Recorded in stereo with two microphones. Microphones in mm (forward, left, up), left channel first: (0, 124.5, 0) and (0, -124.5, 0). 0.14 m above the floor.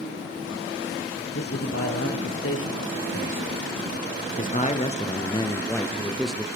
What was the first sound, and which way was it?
A man speaking, 70° left (ahead or behind).